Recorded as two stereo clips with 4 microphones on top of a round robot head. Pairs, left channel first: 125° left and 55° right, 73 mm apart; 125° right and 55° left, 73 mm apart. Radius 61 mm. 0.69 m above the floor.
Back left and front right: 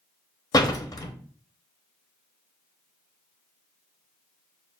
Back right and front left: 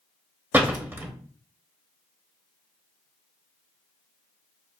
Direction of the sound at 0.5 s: 110° left.